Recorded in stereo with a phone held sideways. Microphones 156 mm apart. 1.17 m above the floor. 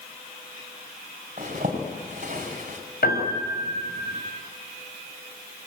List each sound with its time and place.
1.4 s a zipper: 50° right (ahead or behind), 5.5 m
3.0 s a piano: 85° left, 6 m